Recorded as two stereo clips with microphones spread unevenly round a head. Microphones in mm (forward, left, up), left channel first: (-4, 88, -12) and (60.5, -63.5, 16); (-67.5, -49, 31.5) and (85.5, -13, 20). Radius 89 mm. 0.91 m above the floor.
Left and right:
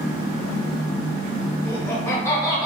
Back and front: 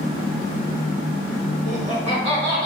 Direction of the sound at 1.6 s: 40° left.